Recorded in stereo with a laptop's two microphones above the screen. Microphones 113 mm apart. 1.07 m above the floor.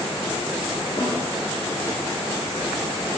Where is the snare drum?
45° left (ahead or behind), 2.5 m.